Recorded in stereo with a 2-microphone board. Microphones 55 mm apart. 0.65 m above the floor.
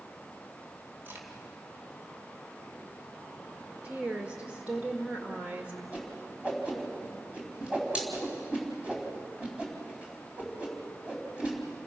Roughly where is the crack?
Right.